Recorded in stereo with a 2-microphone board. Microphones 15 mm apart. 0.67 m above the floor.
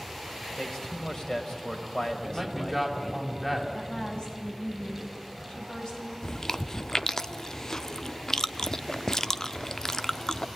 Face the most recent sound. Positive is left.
turn(degrees=30)  # may be behind; listen again after turning